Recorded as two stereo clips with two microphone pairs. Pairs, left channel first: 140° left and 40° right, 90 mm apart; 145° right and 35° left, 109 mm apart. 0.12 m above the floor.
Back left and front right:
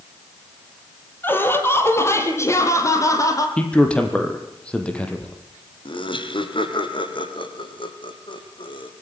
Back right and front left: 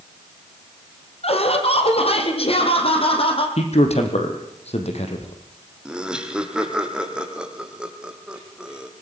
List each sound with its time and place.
1.2 s laughter: 155° right, 5 m; by 3.5 s 170° right, 6 m
3.6 s a man speaking: 145° right, 4.5 m
5.8 s laughter: 120° left, 3.5 m